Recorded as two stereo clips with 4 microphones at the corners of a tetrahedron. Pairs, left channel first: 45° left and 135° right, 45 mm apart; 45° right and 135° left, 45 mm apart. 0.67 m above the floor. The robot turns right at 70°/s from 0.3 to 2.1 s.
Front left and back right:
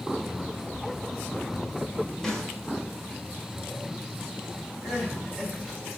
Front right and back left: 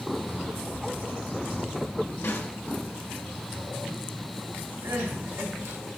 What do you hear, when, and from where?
2.2 s a snare drum: 35° right, 1.7 m
4.8 s crying: 135° left, 3 m